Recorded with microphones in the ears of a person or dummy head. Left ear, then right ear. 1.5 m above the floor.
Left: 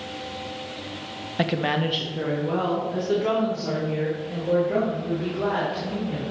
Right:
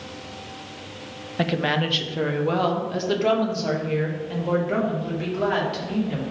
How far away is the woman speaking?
About 0.7 m.